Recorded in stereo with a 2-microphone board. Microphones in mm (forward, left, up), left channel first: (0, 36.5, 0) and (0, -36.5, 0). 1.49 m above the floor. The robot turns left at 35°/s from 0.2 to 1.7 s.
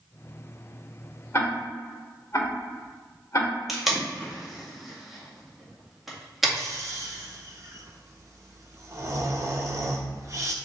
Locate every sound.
1.3 s ticking: 35° left (ahead or behind), 1.8 m; by 3.5 s 40° left (ahead or behind), 1.8 m
3.7 s tape being pulled: centre (ahead or behind), 1.8 m
6.6 s snoring: 40° right (ahead or behind), 0.9 m